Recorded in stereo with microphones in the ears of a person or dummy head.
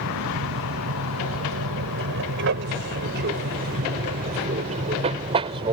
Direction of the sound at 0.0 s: 75° right (ahead or behind).